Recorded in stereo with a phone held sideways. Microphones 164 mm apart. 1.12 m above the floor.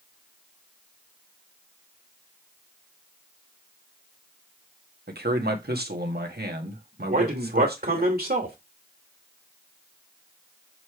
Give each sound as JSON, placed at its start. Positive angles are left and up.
{"t": 5.1, "sound": "a man speaking", "side_deg": -75, "distance_m": 1.6}
{"t": 7.1, "sound": "a man speaking", "side_deg": -65, "distance_m": 2.5}